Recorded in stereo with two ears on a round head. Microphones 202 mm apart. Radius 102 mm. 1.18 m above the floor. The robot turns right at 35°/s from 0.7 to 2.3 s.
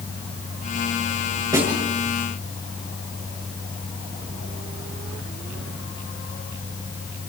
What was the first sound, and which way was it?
A snare drum, 15° right (ahead or behind).